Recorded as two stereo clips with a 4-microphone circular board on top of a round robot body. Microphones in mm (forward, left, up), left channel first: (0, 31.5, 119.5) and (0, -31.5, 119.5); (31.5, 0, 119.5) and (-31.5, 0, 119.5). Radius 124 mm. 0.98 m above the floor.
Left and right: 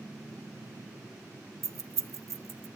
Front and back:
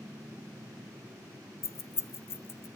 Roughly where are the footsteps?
I don't hear footsteps.